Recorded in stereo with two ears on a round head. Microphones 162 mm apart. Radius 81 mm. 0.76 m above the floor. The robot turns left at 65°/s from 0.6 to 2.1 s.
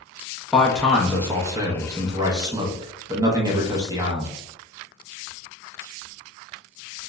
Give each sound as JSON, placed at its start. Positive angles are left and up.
{"t": 0.5, "sound": "a man speaking", "side_deg": 5, "distance_m": 0.5}